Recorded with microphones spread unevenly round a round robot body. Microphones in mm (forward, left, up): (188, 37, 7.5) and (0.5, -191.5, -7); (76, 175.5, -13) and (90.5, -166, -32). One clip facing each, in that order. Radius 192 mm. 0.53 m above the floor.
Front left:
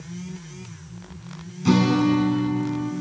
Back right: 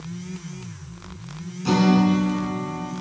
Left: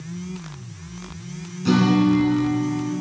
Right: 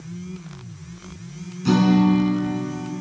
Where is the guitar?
10° right, 2.5 m.